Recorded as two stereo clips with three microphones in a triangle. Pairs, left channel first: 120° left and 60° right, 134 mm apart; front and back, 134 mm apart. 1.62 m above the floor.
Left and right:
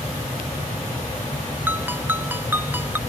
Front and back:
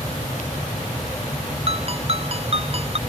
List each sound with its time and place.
1.7 s a ringtone: 135° right